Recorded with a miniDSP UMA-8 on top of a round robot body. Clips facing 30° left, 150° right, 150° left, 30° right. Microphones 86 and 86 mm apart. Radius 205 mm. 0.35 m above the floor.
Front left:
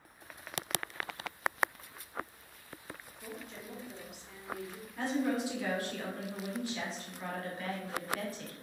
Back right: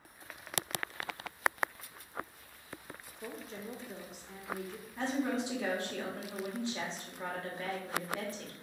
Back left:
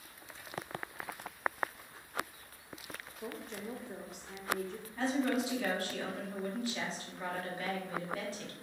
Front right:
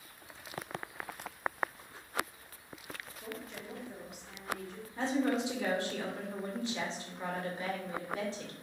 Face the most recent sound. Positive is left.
turn(degrees=-90)